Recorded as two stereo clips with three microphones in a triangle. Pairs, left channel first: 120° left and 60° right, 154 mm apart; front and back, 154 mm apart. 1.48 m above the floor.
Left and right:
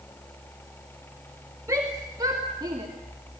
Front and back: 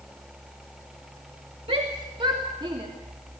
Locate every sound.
1.7 s a shout: 130° right, 2 m; by 2.9 s 120° right, 3 m